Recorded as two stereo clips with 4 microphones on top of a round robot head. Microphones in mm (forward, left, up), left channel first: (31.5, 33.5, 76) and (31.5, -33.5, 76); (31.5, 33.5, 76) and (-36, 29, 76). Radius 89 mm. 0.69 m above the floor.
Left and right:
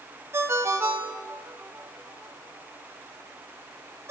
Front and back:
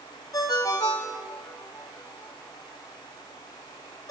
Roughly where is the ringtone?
Ahead right.